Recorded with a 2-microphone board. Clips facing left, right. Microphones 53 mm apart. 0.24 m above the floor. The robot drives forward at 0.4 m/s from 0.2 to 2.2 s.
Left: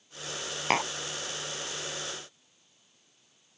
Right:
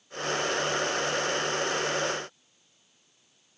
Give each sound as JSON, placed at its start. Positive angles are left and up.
{"t": 0.7, "sound": "tapping", "side_deg": 75}